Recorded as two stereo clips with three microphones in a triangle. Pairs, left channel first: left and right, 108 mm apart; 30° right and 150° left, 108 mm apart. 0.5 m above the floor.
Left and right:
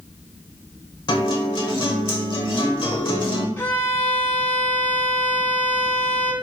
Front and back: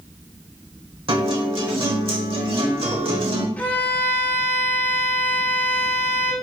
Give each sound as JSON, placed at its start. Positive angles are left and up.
{"t": 1.1, "sound": "a guitar", "azimuth_deg": 125, "distance_m": 1.0}
{"t": 3.6, "sound": "a violin", "azimuth_deg": 35, "distance_m": 0.7}